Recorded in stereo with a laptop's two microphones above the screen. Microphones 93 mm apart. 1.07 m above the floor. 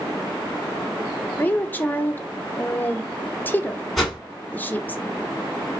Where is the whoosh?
Centre (ahead or behind), 1.8 m.